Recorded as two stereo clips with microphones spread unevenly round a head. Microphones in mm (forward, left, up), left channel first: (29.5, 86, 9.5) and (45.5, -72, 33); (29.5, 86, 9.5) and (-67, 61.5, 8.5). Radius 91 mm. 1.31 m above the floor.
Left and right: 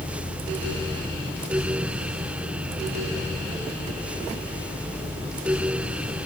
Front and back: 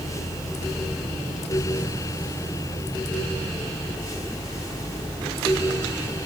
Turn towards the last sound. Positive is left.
No sound to turn to.